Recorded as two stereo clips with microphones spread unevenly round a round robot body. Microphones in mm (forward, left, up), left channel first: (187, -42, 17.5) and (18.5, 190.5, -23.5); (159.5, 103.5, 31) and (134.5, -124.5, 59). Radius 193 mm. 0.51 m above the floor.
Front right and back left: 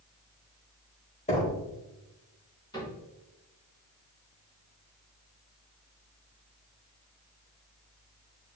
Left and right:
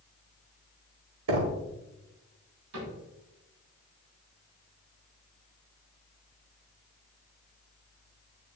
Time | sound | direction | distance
1.3 | knocking | 130° right | 1.0 m
2.7 | a cupboard door | 135° right | 4 m